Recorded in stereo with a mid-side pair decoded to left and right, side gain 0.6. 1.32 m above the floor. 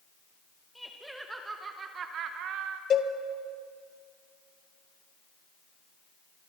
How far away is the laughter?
About 1.6 m.